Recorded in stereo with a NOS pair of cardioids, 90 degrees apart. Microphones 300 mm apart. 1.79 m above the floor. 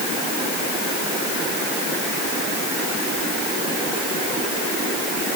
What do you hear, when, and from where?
Only background noise.